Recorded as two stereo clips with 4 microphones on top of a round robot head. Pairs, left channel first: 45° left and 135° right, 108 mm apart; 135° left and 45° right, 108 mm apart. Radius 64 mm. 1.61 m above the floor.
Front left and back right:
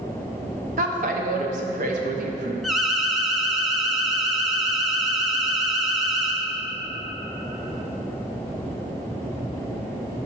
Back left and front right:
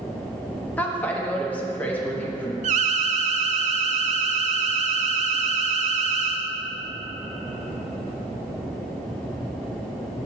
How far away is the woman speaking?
About 0.7 m.